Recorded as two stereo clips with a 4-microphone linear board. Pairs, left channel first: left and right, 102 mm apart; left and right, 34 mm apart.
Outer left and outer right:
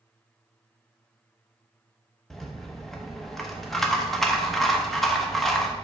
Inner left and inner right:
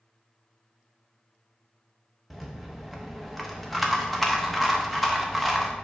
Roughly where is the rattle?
Centre.